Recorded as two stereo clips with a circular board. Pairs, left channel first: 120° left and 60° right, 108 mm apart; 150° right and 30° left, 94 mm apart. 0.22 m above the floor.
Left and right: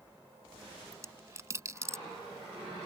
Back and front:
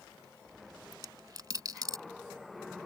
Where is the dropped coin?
5° right.